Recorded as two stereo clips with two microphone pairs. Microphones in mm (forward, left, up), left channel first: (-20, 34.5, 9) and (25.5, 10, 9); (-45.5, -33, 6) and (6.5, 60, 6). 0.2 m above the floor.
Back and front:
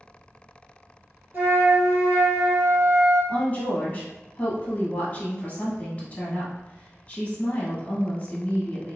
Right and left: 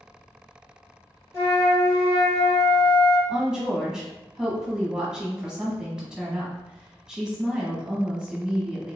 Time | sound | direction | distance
1.3 | a flute | 65° right | 1.1 m
3.3 | a woman speaking | 140° left | 1.1 m